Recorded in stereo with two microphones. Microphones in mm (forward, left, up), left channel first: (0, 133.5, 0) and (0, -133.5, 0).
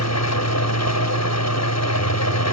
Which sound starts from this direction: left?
An engine running, at 0.0 s.